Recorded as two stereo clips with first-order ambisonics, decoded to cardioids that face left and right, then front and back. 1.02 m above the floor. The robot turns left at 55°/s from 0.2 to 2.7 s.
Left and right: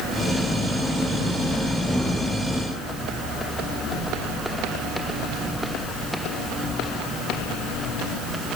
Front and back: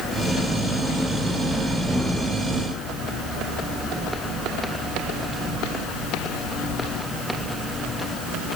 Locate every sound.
Only background noise.